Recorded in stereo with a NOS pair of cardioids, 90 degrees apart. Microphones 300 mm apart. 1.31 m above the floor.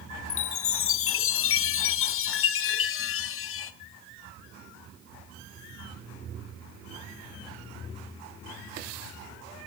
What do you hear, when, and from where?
0.3 s a chime: 45° left, 0.5 m